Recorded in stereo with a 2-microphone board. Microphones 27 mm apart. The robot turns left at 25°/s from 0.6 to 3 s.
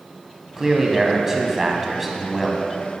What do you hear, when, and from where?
0.6 s a man speaking: 15° right (ahead or behind), 1.0 m; by 2.7 s 5° right (ahead or behind), 1.0 m